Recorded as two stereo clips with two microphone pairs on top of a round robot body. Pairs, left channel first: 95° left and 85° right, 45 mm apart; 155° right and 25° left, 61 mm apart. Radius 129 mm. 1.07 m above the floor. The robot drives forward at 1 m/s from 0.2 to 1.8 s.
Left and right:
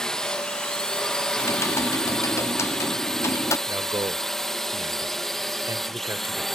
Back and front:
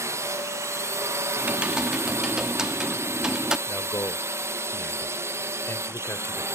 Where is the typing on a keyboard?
85° left; by 3.6 s 105° left.